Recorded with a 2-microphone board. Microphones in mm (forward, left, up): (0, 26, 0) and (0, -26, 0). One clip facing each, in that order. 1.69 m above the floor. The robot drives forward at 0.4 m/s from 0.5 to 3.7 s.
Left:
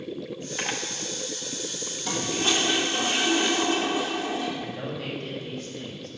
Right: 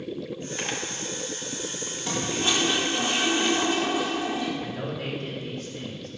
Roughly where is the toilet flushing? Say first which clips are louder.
Even; centre.